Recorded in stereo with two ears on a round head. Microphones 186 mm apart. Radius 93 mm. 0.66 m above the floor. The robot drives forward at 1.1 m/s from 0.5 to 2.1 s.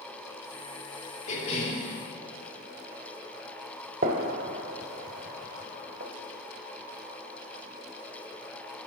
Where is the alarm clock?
I don't hear an alarm clock.